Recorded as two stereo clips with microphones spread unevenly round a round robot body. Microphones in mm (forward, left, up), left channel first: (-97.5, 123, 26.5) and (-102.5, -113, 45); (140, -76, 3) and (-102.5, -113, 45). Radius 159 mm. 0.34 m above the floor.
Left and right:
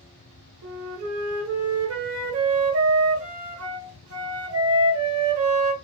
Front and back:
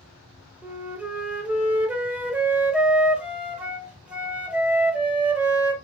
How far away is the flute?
About 0.7 m.